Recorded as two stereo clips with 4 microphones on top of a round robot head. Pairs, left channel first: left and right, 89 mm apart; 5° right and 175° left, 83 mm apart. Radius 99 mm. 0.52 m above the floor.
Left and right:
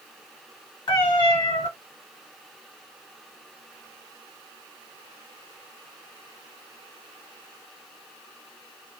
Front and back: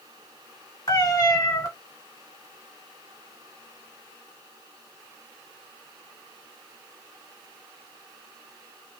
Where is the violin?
I don't hear a violin.